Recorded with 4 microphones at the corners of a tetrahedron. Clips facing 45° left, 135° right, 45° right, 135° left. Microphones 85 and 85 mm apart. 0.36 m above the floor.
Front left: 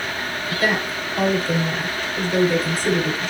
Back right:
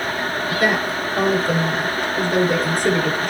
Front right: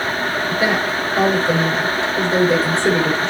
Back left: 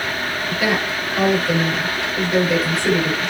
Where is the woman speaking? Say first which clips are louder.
Back right 2 dB, front right 1 dB; 105° right, 7.5 m.